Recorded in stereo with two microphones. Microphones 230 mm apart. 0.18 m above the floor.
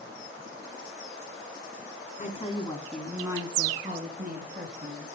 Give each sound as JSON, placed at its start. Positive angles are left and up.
{"t": 2.2, "sound": "a woman speaking", "side_deg": 35, "distance_m": 2.0}